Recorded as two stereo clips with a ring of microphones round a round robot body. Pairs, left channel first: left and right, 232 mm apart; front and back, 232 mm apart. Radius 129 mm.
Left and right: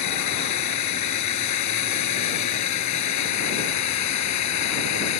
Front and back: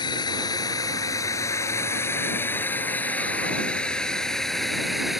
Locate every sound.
0.0 s a drone: 75° left; by 5.2 s 90° left